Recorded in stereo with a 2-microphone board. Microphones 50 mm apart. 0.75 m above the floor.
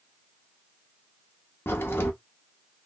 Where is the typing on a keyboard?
No typing on a keyboard in this recording.